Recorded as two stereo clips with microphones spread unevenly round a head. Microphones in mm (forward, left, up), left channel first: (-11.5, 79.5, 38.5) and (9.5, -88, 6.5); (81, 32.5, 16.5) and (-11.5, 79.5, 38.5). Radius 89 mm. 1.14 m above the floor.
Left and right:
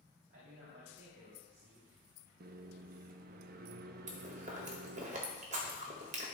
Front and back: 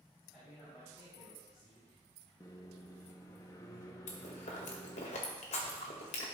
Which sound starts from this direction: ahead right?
Chewing, at 4.1 s.